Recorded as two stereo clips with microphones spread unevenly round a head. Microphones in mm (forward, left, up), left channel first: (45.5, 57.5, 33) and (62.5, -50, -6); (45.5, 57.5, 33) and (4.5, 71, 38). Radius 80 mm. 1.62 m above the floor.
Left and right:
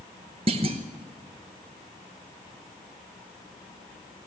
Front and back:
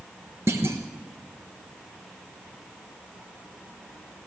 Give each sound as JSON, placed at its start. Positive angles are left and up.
{"t": 0.5, "sound": "a clunk", "azimuth_deg": -145, "distance_m": 1.1}